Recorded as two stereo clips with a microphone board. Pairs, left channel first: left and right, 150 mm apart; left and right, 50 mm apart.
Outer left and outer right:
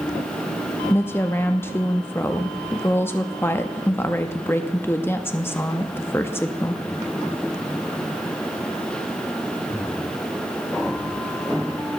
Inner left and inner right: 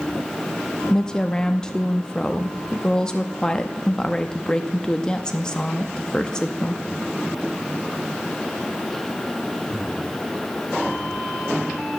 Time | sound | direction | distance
0.9 | a woman speaking | 15° left (ahead or behind) | 0.6 m